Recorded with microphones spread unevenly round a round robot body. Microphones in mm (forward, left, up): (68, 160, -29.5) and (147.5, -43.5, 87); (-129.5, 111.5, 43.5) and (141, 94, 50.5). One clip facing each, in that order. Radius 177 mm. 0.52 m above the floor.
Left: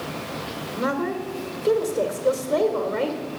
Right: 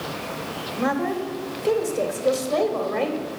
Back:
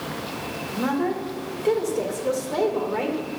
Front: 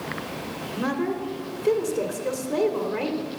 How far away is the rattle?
I don't hear a rattle.